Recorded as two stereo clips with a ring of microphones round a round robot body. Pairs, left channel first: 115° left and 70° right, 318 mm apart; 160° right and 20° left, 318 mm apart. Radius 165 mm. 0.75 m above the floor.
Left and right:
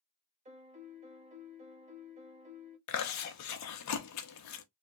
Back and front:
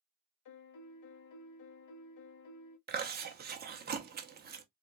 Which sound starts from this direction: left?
Chewing, at 2.9 s.